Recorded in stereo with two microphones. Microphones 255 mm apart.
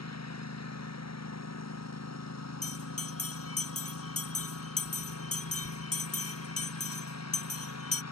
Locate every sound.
0.0 s a lawn mower: 85° left
2.6 s a bell: 65° left (ahead or behind)